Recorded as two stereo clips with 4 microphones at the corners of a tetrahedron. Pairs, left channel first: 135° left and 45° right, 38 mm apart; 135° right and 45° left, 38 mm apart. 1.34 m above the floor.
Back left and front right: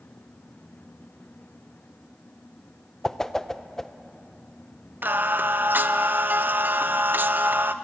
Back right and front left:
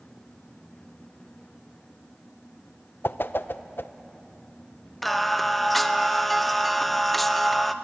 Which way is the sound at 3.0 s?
150° right.